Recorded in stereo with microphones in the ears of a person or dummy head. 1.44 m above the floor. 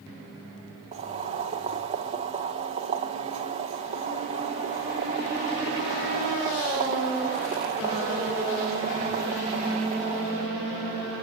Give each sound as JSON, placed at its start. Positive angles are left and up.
{"t": 0.9, "sound": "boiling", "side_deg": -25, "distance_m": 3.0}